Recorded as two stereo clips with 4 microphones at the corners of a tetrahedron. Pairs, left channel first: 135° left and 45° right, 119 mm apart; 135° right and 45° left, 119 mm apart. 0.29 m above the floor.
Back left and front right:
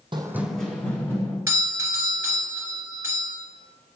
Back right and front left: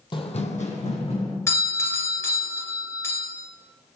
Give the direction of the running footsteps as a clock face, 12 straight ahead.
3 o'clock.